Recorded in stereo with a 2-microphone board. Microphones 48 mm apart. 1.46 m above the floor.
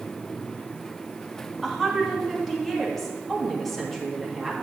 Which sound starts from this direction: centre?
A woman speaking, at 1.6 s.